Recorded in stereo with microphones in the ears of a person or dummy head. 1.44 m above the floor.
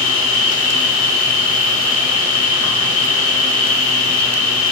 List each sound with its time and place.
0.0 s an insect: 40° left (ahead or behind), 3 m